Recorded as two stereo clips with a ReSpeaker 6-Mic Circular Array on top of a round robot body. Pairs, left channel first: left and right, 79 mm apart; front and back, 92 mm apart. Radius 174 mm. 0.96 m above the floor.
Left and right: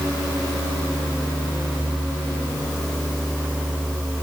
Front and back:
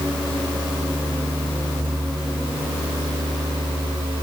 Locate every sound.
Only background noise.